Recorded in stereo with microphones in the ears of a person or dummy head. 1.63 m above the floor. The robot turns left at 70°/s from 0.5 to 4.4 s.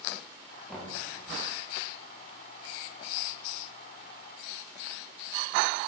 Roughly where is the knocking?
Centre.